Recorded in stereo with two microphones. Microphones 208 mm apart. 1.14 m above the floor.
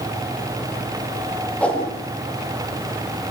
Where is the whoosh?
5° left (ahead or behind), 10 m.